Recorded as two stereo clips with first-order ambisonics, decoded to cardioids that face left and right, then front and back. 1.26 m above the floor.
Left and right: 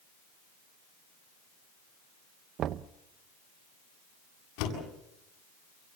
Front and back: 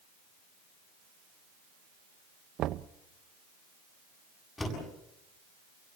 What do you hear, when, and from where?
2.6 s knocking: 140° right, 0.6 m
4.6 s a door slam: 80° left, 8 m